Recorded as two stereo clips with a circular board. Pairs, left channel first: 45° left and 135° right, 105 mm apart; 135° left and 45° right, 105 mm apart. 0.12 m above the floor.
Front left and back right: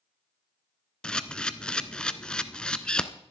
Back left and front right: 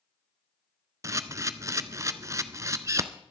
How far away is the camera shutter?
About 0.7 m.